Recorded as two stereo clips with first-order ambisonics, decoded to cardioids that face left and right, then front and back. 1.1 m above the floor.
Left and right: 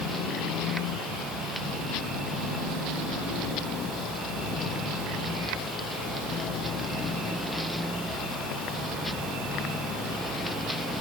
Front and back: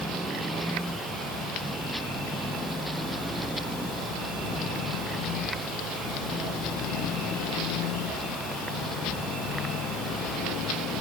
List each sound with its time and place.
Only background noise.